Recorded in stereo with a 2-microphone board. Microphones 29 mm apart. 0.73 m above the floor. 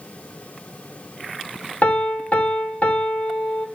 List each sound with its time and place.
1.8 s a piano: 50° left (ahead or behind), 3 m